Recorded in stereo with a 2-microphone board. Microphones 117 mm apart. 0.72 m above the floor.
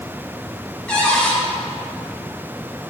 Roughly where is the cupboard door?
Centre.